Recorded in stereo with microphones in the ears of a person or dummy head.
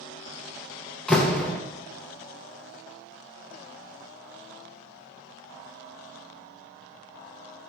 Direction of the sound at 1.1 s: Centre (ahead or behind).